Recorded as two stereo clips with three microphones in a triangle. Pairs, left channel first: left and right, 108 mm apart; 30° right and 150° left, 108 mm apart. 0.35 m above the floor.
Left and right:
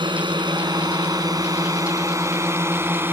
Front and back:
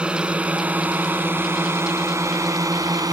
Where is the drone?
130° right; by 3.1 s 160° right.